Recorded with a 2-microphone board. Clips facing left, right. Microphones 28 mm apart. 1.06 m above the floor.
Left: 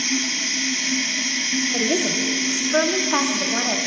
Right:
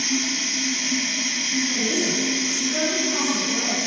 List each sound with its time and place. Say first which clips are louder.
0.0 s running water: left 1 dB; 15° left (ahead or behind), 1.2 m
1.7 s a woman speaking: left 2 dB; 70° left (ahead or behind), 0.7 m